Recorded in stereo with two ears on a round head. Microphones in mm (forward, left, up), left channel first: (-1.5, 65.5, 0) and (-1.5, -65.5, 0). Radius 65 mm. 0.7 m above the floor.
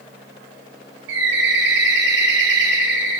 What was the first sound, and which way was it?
A bird, 85° right.